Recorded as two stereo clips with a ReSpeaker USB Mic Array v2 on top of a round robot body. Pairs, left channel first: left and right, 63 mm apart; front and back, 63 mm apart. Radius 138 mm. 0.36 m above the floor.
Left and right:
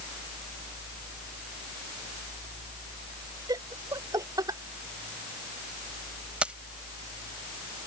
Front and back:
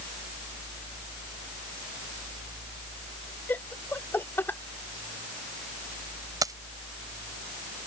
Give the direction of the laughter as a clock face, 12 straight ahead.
2 o'clock.